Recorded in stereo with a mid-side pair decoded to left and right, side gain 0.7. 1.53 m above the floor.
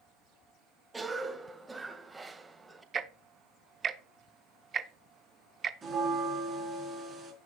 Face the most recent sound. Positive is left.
turn(degrees=-20)